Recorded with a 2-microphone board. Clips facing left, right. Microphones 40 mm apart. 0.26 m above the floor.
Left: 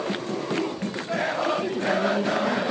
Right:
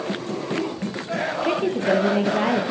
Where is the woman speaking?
40° right (ahead or behind), 4.5 m.